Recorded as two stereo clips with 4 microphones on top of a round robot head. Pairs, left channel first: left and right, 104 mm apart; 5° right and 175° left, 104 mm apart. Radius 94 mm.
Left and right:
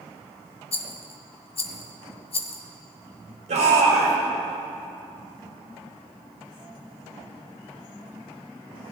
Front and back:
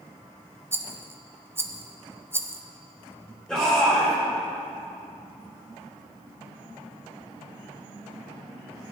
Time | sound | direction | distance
0.7 | a rattle | 110° left | 0.9 m
3.5 | a shout | 90° right | 3 m